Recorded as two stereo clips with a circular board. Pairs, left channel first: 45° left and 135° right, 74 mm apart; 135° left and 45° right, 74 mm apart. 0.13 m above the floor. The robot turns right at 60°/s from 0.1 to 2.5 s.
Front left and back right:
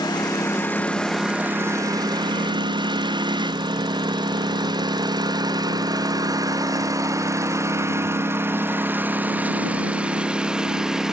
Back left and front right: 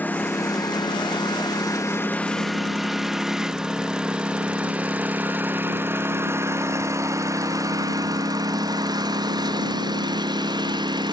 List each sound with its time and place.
0.0 s a lawn mower: 70° left; by 11.1 s 50° right